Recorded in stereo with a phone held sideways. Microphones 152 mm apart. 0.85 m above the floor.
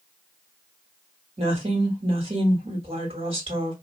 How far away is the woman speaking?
About 1.6 m.